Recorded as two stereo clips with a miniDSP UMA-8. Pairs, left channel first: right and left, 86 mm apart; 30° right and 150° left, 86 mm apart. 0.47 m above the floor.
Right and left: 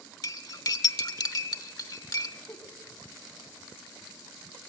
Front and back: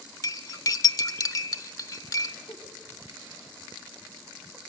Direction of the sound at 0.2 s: 65° right.